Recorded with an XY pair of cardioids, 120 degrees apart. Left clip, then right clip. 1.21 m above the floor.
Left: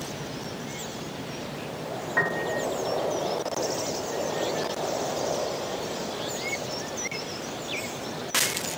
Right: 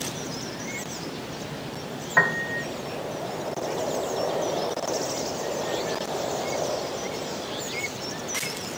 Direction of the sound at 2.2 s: 30° right.